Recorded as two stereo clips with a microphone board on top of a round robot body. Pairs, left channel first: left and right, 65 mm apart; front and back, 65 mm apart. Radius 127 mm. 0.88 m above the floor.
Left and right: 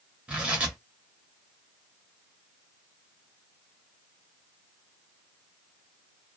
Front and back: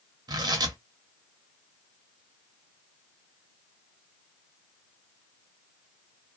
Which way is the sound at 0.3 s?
165° right.